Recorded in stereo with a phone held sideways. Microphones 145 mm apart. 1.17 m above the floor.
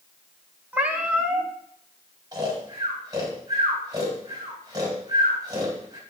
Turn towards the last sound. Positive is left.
turn(degrees=-25)  # may be behind; listen again after turning